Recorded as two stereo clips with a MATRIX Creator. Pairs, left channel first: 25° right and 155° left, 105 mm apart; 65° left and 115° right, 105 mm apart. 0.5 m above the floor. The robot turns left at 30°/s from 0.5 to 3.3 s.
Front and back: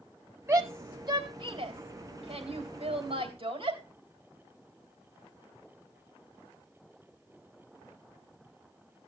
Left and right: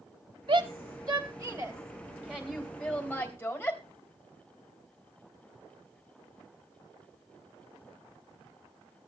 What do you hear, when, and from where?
0.5 s a shout: 140° right, 3 m; by 3.8 s 135° left, 3 m